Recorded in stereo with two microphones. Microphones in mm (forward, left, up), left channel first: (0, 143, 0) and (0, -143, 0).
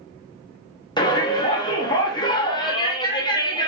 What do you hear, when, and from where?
1.0 s a shout: 15° left (ahead or behind), 0.8 m